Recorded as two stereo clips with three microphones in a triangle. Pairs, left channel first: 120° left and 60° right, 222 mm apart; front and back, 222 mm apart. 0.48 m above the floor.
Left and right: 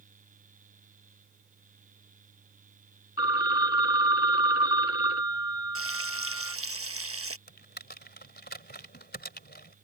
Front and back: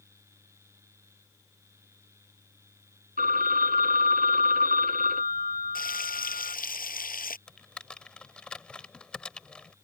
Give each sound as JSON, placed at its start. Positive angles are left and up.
{"t": 3.2, "sound": "a phone ringing", "azimuth_deg": 130}
{"t": 5.8, "sound": "frying", "azimuth_deg": -50}
{"t": 7.5, "sound": "typing on a keyboard", "azimuth_deg": 85}